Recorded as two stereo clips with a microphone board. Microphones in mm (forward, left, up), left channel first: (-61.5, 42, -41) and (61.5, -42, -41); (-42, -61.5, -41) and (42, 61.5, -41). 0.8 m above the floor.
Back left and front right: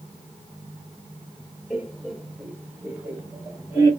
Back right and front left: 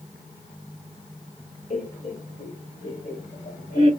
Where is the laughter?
130° right, 2.0 m; by 3.9 s 105° right, 3 m.